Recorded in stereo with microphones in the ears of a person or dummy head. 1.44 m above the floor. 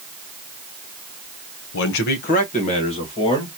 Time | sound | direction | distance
1.7 | a man speaking | 80° left | 0.7 m